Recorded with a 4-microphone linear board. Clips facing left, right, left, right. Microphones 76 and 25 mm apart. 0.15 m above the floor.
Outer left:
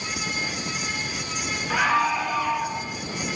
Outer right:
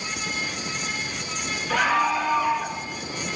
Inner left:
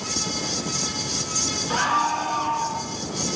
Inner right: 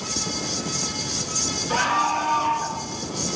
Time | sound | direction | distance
1.7 | a scream | 10° left (ahead or behind) | 2 m